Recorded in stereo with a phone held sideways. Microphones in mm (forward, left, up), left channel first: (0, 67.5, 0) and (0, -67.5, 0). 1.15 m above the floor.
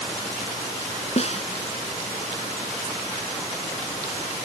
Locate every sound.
1.2 s a snare drum: 50° left (ahead or behind)